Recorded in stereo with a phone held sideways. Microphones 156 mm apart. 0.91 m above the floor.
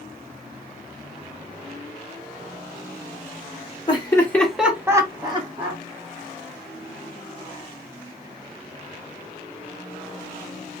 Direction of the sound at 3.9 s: 30° left (ahead or behind).